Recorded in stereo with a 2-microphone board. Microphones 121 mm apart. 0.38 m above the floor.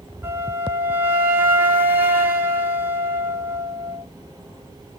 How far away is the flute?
About 0.7 m.